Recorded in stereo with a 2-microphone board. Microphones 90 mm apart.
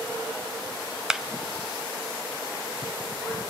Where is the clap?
5° right (ahead or behind), 0.7 m.